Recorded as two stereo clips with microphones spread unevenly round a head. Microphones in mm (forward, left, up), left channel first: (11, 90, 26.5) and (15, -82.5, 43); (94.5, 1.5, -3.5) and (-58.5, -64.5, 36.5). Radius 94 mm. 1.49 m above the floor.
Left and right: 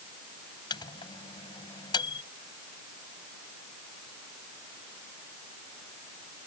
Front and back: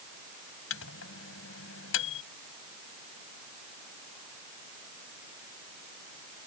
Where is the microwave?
25° left.